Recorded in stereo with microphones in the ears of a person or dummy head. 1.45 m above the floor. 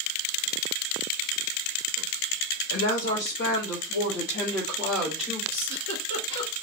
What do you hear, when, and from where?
2.7 s a woman speaking: 70° left (ahead or behind), 1.2 m; by 5.4 s 10° right (ahead or behind), 1.1 m
5.5 s a giggle: 65° left (ahead or behind), 1.8 m